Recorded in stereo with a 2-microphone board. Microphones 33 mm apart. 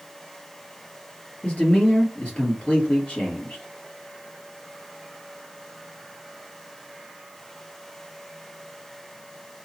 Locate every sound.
1.4 s a man speaking: 40° left (ahead or behind), 2.5 m